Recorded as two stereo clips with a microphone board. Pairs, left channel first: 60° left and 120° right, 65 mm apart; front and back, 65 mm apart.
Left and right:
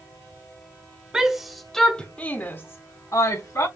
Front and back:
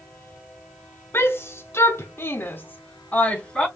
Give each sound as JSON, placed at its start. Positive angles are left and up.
{"t": 1.1, "sound": "a shout", "azimuth_deg": -40, "distance_m": 1.2}